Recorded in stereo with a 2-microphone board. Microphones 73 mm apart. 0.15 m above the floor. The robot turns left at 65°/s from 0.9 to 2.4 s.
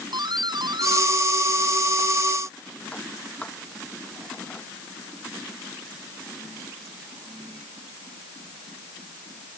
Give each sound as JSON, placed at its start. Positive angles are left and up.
{"t": 0.1, "sound": "a doorbell", "side_deg": -75}